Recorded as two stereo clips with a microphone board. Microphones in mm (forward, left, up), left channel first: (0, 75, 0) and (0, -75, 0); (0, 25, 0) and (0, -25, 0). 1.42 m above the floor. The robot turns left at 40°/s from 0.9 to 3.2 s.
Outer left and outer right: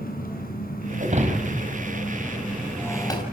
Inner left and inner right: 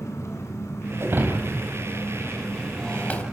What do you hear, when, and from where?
0.0 s an engine running: 70° left, 4 m; by 3.3 s 20° right, 4 m
1.0 s breaking glass: 50° right (ahead or behind), 4 m; by 3.2 s 30° left (ahead or behind), 4 m